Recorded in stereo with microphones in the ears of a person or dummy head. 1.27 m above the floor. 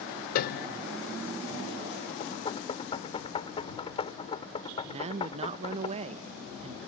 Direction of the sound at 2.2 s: 20° left (ahead or behind).